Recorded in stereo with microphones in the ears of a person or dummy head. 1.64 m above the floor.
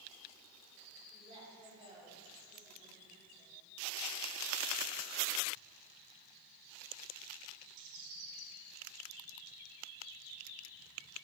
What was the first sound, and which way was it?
A woman speaking, 35° right (ahead or behind).